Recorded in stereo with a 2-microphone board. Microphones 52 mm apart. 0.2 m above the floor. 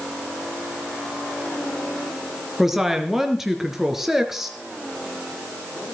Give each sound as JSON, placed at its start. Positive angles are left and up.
{"t": 2.6, "sound": "a woman speaking", "side_deg": -5, "distance_m": 3.5}